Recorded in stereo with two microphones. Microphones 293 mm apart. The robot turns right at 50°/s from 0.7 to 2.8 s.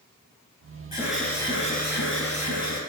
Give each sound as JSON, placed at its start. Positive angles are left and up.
{"t": 0.9, "sound": "an alarm", "azimuth_deg": -10, "distance_m": 3.5}